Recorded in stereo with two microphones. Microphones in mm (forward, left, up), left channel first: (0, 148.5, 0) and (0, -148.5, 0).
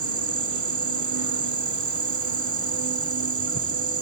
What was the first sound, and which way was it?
An insect, 75° right (ahead or behind).